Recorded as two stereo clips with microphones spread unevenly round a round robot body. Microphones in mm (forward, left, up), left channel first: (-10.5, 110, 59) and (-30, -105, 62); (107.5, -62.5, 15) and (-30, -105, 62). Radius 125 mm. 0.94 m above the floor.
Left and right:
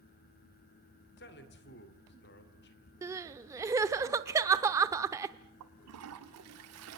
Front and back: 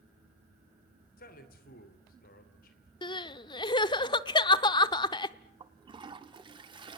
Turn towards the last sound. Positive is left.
turn(degrees=-105)